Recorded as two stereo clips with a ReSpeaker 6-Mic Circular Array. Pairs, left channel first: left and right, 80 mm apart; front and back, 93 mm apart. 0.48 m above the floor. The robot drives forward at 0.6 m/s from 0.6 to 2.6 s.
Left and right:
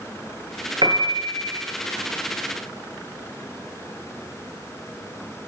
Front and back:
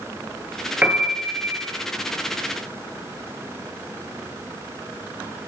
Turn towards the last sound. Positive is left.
turn(degrees=-115)